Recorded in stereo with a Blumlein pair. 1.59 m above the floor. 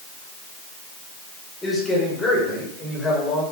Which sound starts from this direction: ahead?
A man speaking, at 1.6 s.